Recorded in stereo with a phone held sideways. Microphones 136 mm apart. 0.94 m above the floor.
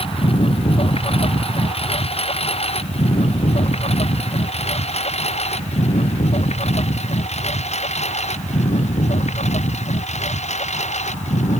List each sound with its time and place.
0.0 s a lawn mower: 45° left (ahead or behind); by 11.6 s 55° left (ahead or behind)